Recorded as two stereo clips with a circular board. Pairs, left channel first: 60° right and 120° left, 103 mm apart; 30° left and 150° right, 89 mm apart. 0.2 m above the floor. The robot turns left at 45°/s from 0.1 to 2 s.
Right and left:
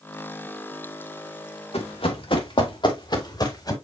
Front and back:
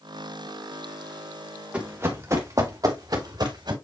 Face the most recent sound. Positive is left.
turn(degrees=-110)